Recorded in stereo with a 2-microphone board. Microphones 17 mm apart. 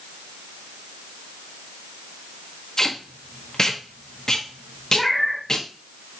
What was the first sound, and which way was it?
Tape being pulled, 30° left (ahead or behind).